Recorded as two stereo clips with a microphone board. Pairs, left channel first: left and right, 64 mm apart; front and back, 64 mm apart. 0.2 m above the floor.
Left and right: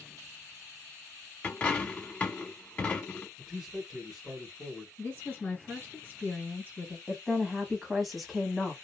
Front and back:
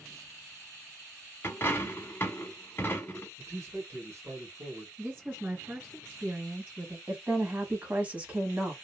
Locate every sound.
1.4 s a dropped coin: 30° left, 0.8 m
3.4 s a man speaking: 170° right, 1.6 m
5.0 s a woman speaking: 130° left, 1.6 m
7.1 s a woman speaking: straight behind, 1.0 m